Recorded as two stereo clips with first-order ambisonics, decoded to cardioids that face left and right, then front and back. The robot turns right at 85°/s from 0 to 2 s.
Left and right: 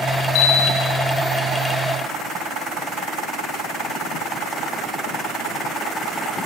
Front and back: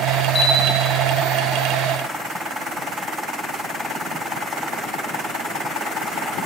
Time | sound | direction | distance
0.3 | a bell | 75° left | 4.5 m